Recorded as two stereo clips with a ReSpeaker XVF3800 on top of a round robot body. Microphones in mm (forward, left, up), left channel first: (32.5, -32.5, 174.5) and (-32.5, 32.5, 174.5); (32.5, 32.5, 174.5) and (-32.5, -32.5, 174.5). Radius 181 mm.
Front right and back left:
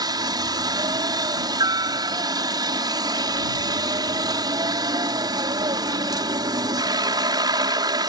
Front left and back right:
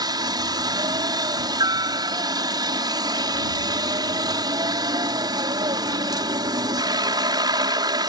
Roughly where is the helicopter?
Behind.